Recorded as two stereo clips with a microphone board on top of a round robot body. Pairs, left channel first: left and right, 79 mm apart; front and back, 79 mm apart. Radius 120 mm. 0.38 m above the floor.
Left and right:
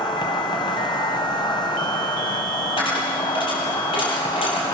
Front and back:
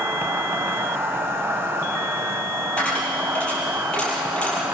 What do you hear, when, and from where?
0.0 s an insect: 120° left, 1.9 m
2.8 s a dropped coin: 80° left, 5 m